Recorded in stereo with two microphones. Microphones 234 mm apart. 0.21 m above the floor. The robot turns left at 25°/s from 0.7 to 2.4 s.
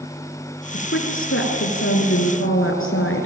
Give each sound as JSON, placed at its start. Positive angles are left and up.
{"t": 0.7, "sound": "a woman speaking", "azimuth_deg": 120, "distance_m": 3.5}